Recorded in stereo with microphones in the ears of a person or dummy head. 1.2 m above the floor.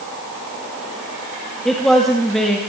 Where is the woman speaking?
Centre (ahead or behind), 1.7 m.